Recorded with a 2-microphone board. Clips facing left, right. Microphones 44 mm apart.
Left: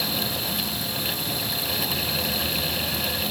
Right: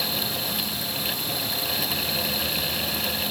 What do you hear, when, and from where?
Only background noise.